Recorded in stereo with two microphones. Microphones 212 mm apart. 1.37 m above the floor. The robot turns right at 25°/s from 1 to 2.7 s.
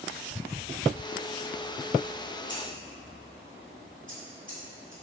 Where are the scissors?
60° right (ahead or behind), 1.6 m; by 4.9 s 65° right (ahead or behind), 1.6 m.